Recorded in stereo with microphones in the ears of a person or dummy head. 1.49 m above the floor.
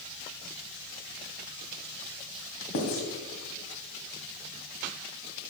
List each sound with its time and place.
2.7 s writing: 60° left (ahead or behind), 2.5 m